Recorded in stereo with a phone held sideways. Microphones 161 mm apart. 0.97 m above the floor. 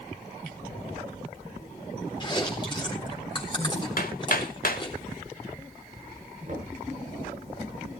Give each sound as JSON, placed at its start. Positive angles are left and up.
{"t": 2.2, "sound": "chewing", "side_deg": 30, "distance_m": 3.5}
{"t": 4.0, "sound": "hammering", "side_deg": 65, "distance_m": 1.4}
{"t": 6.5, "sound": "knocking", "side_deg": -50, "distance_m": 8.5}